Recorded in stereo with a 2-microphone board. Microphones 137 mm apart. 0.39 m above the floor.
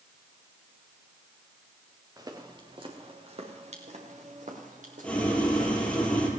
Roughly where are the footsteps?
Right.